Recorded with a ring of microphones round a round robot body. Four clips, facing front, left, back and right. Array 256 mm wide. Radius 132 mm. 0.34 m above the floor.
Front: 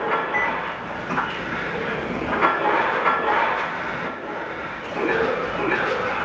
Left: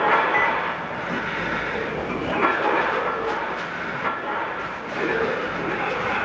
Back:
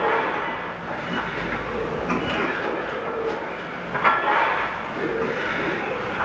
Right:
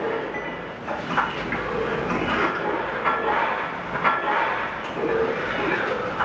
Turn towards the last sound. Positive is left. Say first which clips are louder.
# left 9 dB, front 3 dB
turn(degrees=45)